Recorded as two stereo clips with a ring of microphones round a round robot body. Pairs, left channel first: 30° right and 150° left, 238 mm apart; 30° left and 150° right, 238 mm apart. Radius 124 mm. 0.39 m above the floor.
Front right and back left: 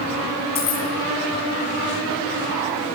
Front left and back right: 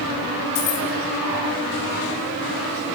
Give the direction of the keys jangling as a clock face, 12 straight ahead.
11 o'clock.